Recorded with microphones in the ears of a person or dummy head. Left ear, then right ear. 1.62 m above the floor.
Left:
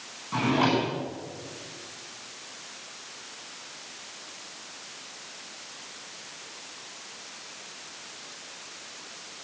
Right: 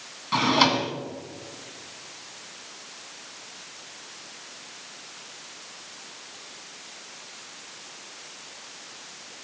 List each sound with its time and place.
0.3 s a drawer: 65° right (ahead or behind), 1.5 m